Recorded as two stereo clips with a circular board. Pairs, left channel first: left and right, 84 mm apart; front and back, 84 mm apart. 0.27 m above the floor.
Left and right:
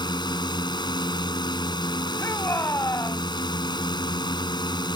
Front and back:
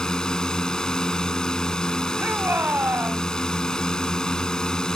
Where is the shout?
125° left.